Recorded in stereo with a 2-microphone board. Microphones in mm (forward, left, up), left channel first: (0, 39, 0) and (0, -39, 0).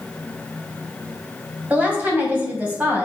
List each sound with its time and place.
1.7 s a woman speaking: 20° right (ahead or behind), 2.5 m